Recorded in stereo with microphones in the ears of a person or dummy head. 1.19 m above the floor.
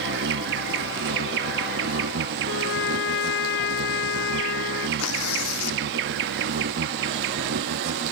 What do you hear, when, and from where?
0.0 s an insect: 55° right (ahead or behind)
2.5 s a trumpet: 70° left (ahead or behind)
5.0 s tearing paper: 85° left